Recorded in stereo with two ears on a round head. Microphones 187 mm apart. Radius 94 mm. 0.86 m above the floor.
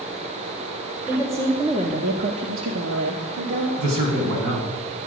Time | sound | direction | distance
1.1 | a woman speaking | 10° right (ahead or behind) | 2.5 m
3.8 | a man speaking | 70° right (ahead or behind) | 6 m